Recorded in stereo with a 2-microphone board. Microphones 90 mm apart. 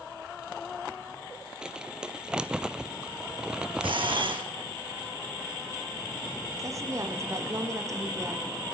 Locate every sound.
1.6 s crumpling: 10° right (ahead or behind), 0.7 m
3.8 s a camera shutter: 70° right (ahead or behind), 3 m
6.6 s a woman speaking: 35° right (ahead or behind), 5 m